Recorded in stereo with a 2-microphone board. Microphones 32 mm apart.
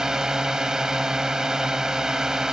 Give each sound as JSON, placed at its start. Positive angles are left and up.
{"t": 0.0, "sound": "a drone", "side_deg": -20}